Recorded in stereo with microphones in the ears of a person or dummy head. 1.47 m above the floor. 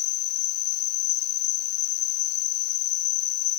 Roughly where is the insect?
Left.